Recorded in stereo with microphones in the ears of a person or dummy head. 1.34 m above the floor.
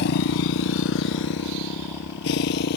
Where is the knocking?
No knocking in this recording.